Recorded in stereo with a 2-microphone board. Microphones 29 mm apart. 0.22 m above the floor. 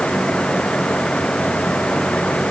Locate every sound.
Only background noise.